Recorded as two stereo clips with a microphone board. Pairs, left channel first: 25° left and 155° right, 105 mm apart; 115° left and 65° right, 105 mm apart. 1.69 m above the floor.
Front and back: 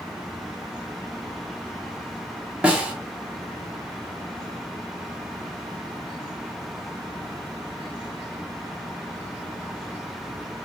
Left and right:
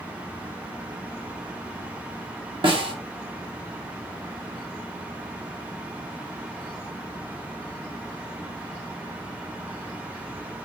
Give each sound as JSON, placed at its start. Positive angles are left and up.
{"t": 2.6, "sound": "a snare drum", "azimuth_deg": -80, "distance_m": 1.2}